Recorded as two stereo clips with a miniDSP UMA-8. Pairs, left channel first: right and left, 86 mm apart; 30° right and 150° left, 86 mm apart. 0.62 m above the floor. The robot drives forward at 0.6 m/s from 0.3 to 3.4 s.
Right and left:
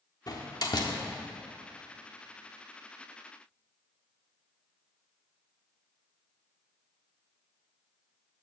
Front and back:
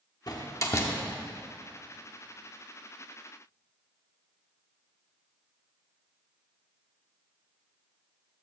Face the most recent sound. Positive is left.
turn(degrees=-150)